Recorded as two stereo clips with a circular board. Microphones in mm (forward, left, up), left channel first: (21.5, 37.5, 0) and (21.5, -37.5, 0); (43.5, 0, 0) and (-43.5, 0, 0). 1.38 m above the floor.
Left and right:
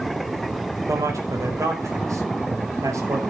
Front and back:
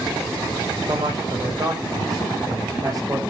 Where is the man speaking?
135° right, 5 m.